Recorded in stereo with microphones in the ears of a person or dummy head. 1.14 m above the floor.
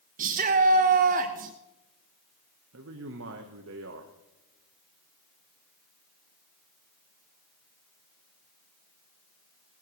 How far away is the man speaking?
About 0.9 m.